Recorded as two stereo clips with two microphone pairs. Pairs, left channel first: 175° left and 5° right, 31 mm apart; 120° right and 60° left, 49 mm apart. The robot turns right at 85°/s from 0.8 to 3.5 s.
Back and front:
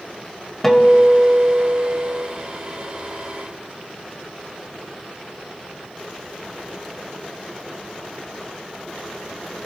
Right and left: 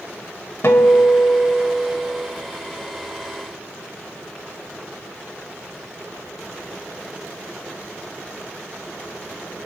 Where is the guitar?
110° right, 1.4 m; by 2.3 s 15° left, 1.4 m.